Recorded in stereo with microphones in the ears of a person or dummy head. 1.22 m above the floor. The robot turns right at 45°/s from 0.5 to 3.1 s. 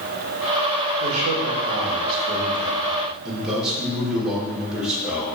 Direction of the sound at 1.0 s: 95° right.